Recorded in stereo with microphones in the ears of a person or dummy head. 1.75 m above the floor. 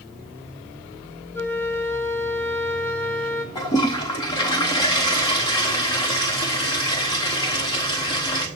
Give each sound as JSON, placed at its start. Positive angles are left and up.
{"t": 1.3, "sound": "a flute", "side_deg": 10, "distance_m": 0.7}
{"t": 3.5, "sound": "a toilet flushing", "side_deg": 20, "distance_m": 0.7}